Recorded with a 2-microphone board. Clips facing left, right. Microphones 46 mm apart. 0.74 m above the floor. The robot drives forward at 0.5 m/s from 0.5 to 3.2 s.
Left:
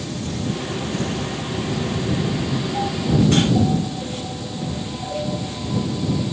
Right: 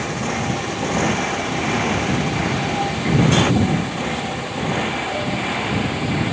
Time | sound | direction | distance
0.0 | a motorcycle | 60° right (ahead or behind) | ?